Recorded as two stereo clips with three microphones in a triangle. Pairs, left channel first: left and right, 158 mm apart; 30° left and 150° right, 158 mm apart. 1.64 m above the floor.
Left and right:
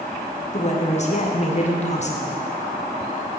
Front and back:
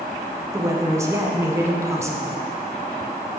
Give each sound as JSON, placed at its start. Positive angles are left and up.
{"t": 0.5, "sound": "a woman speaking", "azimuth_deg": 140, "distance_m": 1.0}